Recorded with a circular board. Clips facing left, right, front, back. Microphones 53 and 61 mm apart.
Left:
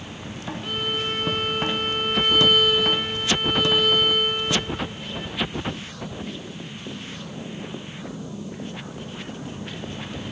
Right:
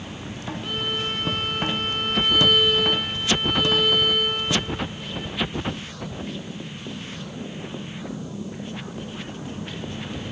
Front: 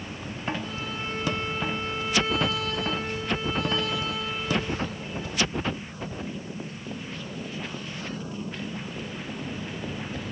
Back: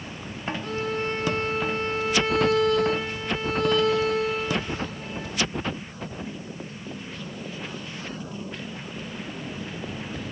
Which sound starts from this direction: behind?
A violin, at 0.6 s.